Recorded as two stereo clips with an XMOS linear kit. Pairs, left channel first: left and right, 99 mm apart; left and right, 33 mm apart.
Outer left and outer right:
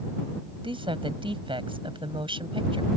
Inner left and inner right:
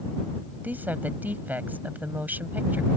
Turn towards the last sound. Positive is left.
turn(degrees=-60)  # may be behind; listen again after turning